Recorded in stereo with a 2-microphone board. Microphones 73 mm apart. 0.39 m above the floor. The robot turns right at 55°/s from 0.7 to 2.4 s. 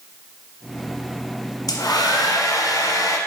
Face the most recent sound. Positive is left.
turn(degrees=110)